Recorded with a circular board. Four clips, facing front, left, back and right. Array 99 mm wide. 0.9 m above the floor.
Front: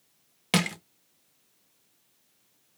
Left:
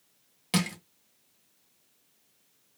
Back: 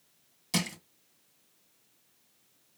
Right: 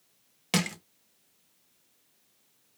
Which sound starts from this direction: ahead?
Crushing, at 0.5 s.